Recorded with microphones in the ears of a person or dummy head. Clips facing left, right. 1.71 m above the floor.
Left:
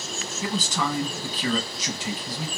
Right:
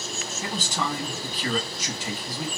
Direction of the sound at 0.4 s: 70° left (ahead or behind).